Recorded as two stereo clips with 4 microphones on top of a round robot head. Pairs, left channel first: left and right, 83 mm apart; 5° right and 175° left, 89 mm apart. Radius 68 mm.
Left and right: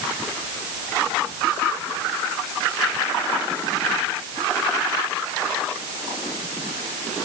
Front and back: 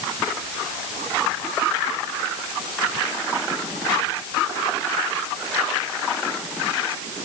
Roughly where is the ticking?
I don't hear ticking.